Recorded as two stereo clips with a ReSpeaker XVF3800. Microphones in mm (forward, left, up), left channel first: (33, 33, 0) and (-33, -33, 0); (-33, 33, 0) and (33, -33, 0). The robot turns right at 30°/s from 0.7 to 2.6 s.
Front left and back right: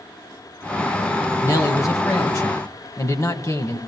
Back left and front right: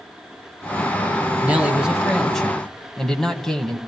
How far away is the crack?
No crack in this recording.